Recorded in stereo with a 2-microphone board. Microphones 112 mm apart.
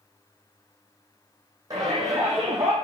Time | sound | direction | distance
1.7 | a shout | 30° right (ahead or behind) | 8 m